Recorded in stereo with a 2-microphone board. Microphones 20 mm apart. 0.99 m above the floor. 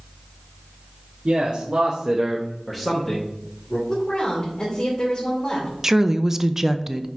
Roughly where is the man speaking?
Right.